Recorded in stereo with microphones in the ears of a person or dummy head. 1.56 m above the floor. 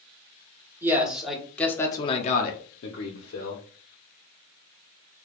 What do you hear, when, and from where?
0.8 s a man speaking: 15° right (ahead or behind), 1.3 m; by 3.6 s 80° left, 1.1 m